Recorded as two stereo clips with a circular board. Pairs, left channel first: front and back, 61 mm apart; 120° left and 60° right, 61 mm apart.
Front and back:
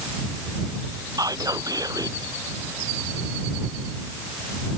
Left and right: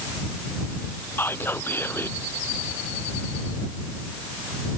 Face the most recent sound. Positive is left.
turn(degrees=170)